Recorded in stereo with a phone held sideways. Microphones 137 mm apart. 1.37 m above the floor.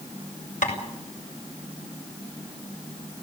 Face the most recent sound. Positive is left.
turn(degrees=75)  # may be behind; listen again after turning